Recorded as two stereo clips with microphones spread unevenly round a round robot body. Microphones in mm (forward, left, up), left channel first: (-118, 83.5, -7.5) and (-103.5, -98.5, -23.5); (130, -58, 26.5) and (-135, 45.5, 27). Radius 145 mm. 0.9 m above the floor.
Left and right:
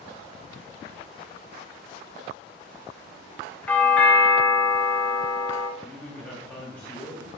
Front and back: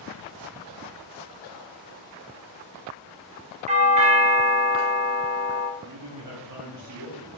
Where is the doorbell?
Straight behind, 1.0 m.